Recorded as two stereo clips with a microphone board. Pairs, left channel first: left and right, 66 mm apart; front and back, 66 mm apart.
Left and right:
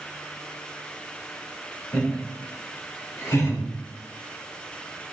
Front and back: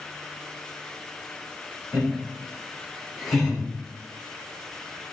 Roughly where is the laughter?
Behind left.